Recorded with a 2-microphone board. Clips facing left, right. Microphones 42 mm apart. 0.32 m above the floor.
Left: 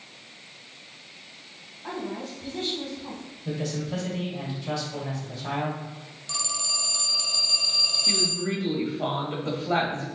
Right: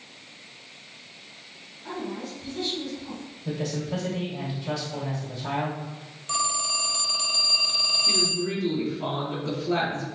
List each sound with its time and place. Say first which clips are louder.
1.8 s a woman speaking: even; 50° left (ahead or behind), 2 m; by 3.2 s 60° left (ahead or behind), 3 m
3.5 s a man speaking: right 1 dB; centre (ahead or behind), 1.6 m
6.3 s a phone ringing: right 6 dB; 35° right (ahead or behind), 0.7 m
8.1 s a woman speaking: right 1 dB; 45° left (ahead or behind), 1.6 m